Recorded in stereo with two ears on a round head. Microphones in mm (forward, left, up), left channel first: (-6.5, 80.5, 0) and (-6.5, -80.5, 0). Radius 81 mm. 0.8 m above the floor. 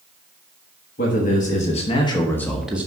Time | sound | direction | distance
1.0 | a man speaking | 50° left (ahead or behind) | 1.5 m